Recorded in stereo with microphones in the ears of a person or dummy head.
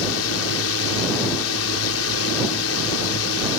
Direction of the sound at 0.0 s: 80° left.